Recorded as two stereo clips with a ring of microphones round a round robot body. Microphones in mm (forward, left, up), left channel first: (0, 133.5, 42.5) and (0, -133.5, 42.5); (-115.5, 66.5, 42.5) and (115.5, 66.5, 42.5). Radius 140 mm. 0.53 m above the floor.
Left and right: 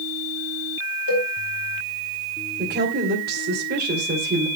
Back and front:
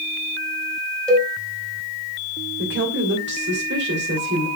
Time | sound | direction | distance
1.1 | a cowbell | 90° left | 4.5 m
2.6 | a woman speaking | 40° right | 3 m